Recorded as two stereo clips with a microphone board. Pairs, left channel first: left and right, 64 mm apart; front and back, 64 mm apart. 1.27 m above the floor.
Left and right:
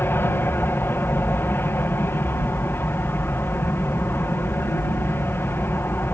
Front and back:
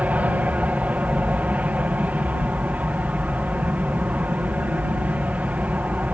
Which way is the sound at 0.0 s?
125° left.